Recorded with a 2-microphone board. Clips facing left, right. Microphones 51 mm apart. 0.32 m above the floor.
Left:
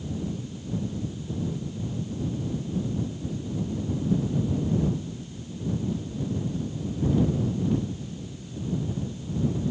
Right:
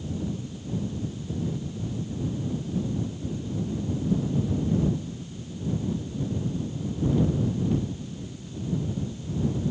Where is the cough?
No cough in this recording.